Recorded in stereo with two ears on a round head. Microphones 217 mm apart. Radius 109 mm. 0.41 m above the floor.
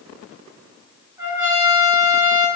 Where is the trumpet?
10° right (ahead or behind), 4.5 m.